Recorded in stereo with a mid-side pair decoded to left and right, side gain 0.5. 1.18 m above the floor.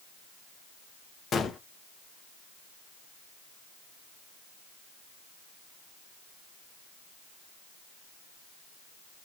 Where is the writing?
I don't hear writing.